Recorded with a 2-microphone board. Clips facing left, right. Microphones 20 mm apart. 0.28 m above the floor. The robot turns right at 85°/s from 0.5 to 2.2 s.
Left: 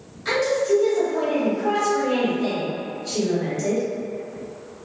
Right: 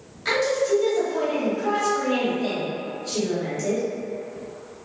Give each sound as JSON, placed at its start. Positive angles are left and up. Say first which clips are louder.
{"t": 0.2, "sound": "a woman speaking", "louder": "left 1 dB", "azimuth_deg": -45, "distance_m": 1.4}